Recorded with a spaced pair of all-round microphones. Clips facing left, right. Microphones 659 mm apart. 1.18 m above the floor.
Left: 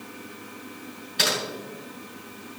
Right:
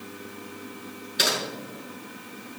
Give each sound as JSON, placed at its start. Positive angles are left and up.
{"t": 1.2, "sound": "typing on a keyboard", "side_deg": 30, "distance_m": 6.0}